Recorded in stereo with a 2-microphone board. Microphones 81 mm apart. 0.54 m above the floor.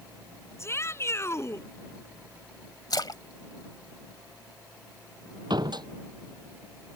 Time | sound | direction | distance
0.6 | a shout | 35° left (ahead or behind) | ?
2.9 | a splash | 60° left (ahead or behind) | ?
5.5 | a door slam | 65° right (ahead or behind) | ?